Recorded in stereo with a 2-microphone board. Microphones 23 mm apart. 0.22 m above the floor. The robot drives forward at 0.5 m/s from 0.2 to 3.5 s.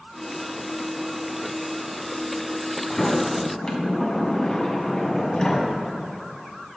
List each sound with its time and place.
2.9 s a sliding door: 30° left (ahead or behind), 1.5 m; by 5.7 s 35° left (ahead or behind), 1.4 m